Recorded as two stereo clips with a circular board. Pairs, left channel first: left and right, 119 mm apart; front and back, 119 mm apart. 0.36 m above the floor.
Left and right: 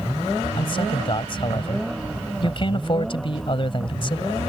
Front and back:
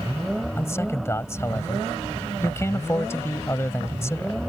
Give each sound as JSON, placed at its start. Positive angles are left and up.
{"t": 0.6, "sound": "a man speaking", "azimuth_deg": 60}